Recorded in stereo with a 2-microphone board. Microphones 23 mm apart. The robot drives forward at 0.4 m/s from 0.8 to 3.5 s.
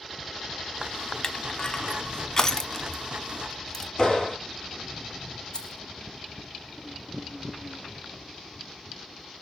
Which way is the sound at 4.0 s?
25° left (ahead or behind).